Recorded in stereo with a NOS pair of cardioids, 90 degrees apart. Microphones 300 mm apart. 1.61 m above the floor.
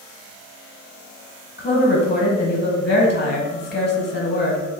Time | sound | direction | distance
1.6 | a woman speaking | 35° left | 1.4 m